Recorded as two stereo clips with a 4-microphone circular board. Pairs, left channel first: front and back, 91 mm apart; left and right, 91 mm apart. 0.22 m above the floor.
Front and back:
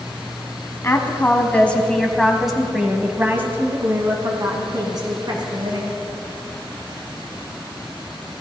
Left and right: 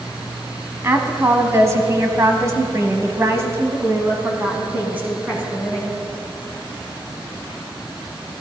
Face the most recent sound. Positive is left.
turn(degrees=-165)